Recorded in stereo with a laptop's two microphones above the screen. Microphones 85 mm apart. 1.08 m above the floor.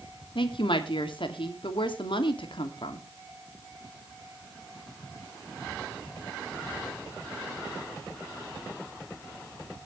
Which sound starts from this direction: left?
A woman speaking, at 0.3 s.